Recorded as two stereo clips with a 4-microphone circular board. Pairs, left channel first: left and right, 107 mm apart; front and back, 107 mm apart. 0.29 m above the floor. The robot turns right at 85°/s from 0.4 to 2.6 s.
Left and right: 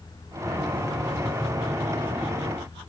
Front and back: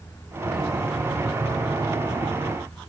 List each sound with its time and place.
Only background noise.